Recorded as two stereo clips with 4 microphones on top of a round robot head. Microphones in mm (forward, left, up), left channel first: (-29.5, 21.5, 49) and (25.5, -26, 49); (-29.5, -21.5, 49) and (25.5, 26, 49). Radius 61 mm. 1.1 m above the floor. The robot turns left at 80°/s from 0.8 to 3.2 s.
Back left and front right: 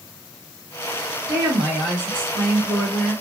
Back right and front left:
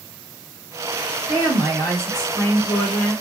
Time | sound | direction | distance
1.3 | a woman speaking | 20° left | 1.7 m